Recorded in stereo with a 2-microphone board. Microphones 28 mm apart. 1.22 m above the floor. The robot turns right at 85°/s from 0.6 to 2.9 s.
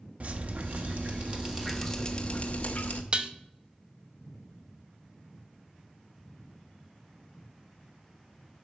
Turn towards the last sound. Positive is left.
turn(degrees=-40)  # may be behind; listen again after turning